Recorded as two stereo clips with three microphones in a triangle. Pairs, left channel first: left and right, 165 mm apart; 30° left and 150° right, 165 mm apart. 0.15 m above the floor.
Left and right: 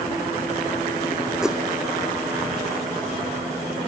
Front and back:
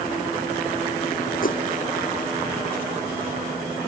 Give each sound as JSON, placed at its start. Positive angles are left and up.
{"t": 1.4, "sound": "a whoosh", "azimuth_deg": -5}